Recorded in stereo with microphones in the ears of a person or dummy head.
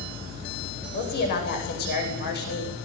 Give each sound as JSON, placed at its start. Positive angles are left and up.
{"t": 0.9, "sound": "a woman speaking", "side_deg": 50, "distance_m": 9.5}